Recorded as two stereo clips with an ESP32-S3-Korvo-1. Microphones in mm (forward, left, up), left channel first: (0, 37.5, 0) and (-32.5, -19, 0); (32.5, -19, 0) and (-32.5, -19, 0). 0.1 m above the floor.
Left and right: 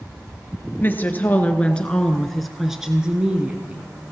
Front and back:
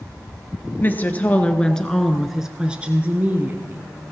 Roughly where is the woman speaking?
Ahead left.